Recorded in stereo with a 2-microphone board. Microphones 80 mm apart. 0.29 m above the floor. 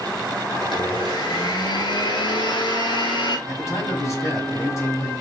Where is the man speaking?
40° left (ahead or behind), 1.6 m.